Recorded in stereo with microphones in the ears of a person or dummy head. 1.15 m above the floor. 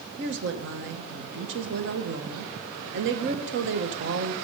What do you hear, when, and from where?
0.2 s a woman speaking: 60° right (ahead or behind), 0.9 m